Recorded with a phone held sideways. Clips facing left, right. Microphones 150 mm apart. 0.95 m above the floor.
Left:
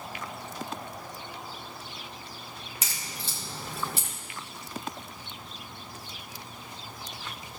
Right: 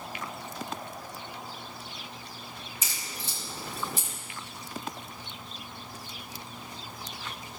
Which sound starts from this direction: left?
A crack, at 2.8 s.